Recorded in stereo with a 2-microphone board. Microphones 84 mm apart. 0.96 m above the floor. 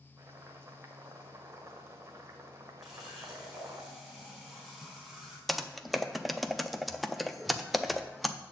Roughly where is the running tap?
Centre.